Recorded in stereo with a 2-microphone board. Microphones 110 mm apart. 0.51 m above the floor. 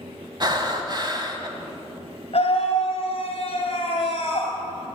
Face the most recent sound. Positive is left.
turn(degrees=60)  # may be behind; listen again after turning